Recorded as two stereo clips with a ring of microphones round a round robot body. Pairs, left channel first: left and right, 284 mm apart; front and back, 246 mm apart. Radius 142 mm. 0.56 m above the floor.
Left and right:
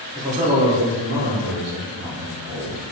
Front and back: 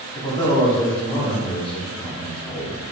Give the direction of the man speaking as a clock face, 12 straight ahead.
2 o'clock.